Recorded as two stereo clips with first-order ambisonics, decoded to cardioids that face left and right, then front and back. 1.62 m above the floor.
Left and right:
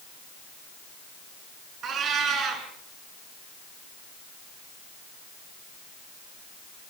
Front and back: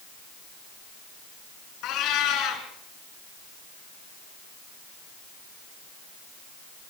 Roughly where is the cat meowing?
Ahead right.